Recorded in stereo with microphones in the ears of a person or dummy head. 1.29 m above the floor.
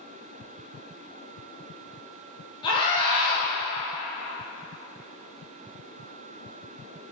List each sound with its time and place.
2.6 s a scream: 25° left (ahead or behind), 2.5 m